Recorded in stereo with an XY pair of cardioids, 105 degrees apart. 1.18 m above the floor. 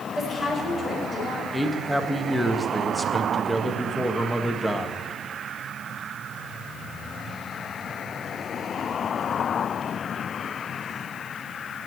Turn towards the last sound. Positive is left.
turn(degrees=0)